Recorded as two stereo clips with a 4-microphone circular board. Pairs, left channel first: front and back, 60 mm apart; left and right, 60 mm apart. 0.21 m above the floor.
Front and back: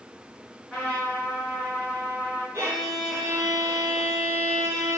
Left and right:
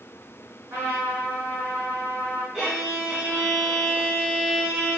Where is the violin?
175° right, 1.1 m.